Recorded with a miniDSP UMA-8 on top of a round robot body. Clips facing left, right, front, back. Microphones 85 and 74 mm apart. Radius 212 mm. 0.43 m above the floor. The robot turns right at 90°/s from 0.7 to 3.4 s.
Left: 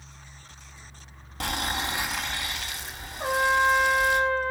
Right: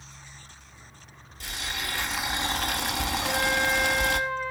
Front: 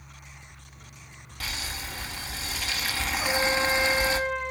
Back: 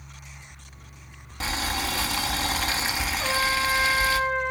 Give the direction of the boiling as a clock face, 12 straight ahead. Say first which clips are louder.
Left 6 dB, back 8 dB; 8 o'clock.